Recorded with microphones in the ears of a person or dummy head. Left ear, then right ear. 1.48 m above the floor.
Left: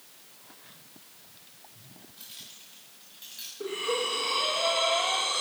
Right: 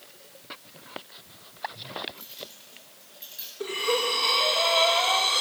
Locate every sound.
2.2 s keys jangling: centre (ahead or behind), 8.5 m
3.6 s breathing: 30° right (ahead or behind), 2.5 m